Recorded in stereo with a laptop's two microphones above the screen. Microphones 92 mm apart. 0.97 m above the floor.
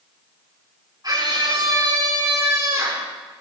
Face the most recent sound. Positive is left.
turn(degrees=-30)  # may be behind; listen again after turning